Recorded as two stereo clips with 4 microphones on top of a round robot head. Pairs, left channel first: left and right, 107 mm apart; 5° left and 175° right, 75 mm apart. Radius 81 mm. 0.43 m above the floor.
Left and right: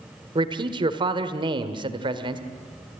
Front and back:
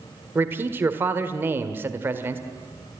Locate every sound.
0.3 s a man speaking: 120° right, 1.6 m